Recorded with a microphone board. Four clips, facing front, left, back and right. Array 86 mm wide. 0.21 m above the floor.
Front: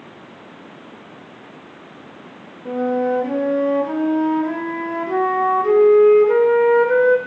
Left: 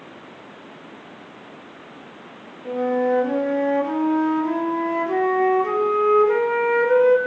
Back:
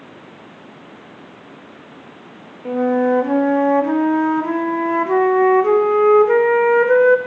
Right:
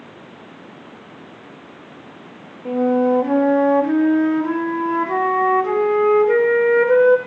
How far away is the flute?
About 4 m.